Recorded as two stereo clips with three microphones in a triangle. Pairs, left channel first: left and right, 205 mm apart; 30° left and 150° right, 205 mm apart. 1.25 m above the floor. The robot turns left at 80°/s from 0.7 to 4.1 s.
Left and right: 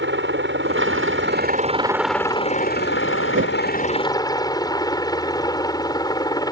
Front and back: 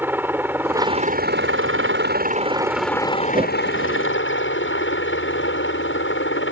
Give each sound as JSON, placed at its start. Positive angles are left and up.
{"t": 0.0, "sound": "a helicopter", "azimuth_deg": -70}
{"t": 3.3, "sound": "a whoosh", "azimuth_deg": -80}